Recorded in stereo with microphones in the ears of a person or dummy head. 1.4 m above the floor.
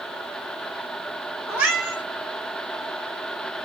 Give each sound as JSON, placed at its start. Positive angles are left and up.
{"t": 1.5, "sound": "a cat meowing", "side_deg": -5, "distance_m": 1.7}